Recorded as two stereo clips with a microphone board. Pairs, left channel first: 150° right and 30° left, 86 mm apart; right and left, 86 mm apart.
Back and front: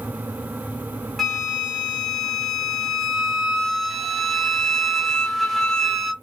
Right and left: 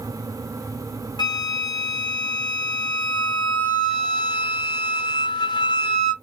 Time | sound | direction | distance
1.2 | a flute | 65° right | 1.0 m